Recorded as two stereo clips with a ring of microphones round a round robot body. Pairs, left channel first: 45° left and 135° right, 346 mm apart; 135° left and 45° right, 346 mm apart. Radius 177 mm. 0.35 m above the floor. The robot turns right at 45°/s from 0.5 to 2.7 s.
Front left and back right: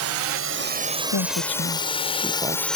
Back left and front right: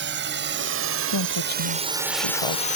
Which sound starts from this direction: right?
A drone, at 0.0 s.